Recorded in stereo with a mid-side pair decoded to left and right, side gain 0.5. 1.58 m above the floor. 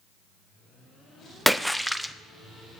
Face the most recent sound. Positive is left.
turn(degrees=0)